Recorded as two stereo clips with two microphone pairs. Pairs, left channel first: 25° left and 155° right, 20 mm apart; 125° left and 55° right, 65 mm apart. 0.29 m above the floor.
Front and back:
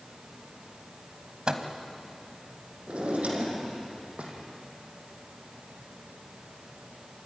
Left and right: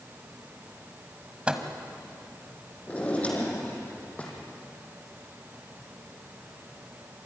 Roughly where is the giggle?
No giggle in this recording.